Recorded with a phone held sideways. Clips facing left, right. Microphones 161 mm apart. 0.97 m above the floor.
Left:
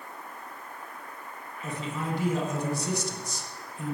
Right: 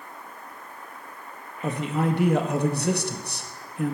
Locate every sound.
1.6 s a man speaking: 65° right (ahead or behind), 1.6 m